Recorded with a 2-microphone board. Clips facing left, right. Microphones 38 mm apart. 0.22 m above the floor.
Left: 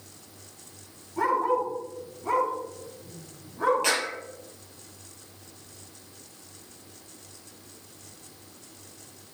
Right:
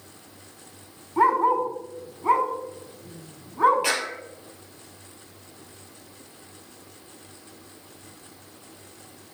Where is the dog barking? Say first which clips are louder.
Right 5 dB; 45° right (ahead or behind), 4.5 m.